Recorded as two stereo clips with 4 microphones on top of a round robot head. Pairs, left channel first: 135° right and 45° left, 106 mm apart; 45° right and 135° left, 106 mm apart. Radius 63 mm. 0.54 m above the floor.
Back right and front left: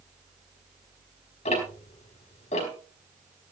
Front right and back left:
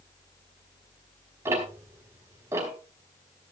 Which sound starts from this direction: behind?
Ticking, at 1.4 s.